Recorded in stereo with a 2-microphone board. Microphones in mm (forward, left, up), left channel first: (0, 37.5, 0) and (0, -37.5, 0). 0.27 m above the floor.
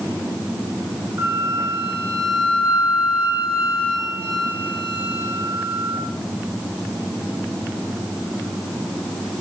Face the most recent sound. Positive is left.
turn(degrees=-35)  # may be behind; listen again after turning